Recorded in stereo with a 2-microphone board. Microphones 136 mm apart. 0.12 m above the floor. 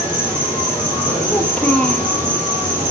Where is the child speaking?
10° left (ahead or behind), 2 m.